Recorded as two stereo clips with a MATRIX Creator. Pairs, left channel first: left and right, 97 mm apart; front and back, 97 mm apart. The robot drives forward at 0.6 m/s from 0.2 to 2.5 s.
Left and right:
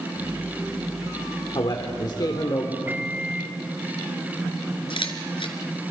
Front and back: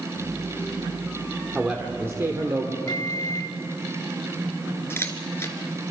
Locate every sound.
1.6 s a man speaking: 110° left, 1.4 m; by 2.8 s 130° left, 1.6 m
2.9 s a microwave: 30° right, 0.9 m
4.9 s a camera shutter: 65° left, 1.9 m